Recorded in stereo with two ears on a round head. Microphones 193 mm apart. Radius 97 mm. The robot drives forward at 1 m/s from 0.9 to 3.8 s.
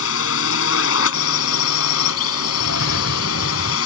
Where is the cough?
65° left (ahead or behind); by 3.8 s 45° left (ahead or behind).